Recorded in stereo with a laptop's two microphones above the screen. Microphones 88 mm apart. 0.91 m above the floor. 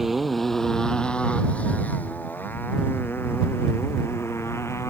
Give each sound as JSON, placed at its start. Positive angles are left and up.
{"t": 0.0, "sound": "a motorcycle", "side_deg": -5}